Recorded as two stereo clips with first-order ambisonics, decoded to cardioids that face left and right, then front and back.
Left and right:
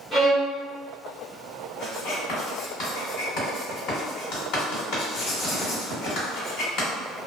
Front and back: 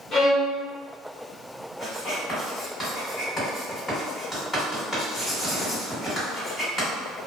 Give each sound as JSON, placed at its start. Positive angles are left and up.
{"t": 0.1, "sound": "a violin", "azimuth_deg": 30, "distance_m": 1.3}
{"t": 1.8, "sound": "writing", "azimuth_deg": 80, "distance_m": 1.7}